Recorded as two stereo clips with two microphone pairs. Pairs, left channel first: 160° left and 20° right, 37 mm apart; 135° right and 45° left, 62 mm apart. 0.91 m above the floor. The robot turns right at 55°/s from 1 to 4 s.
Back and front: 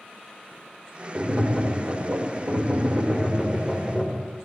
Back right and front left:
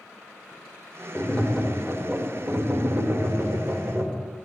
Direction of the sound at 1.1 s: 70° right.